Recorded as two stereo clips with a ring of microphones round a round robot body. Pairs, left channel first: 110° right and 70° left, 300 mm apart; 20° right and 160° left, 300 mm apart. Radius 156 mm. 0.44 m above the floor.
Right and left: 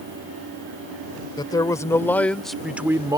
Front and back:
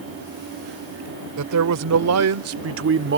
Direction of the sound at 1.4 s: 175° left.